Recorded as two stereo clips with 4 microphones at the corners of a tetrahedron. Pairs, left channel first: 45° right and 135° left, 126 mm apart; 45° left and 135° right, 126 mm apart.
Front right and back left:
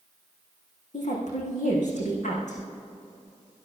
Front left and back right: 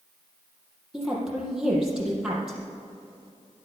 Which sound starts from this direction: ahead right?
A woman speaking, at 0.9 s.